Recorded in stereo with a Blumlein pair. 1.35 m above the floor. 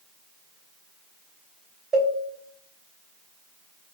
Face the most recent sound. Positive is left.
turn(degrees=-15)